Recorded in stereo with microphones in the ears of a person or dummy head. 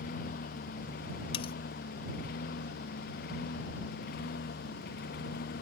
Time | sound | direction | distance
0.0 | a lawn mower | 50° left (ahead or behind) | ?
1.3 | cutlery clinking | 40° left (ahead or behind) | ?